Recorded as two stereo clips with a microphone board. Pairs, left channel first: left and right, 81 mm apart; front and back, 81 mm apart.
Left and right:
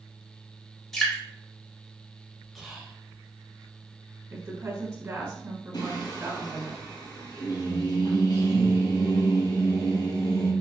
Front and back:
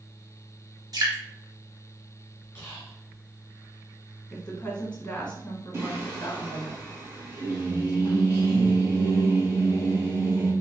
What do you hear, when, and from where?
0.9 s dripping: 175° left, 1.7 m
2.5 s whispering: straight ahead, 1.4 m
4.3 s a woman speaking: 65° right, 1.3 m
5.7 s singing: 125° left, 1.9 m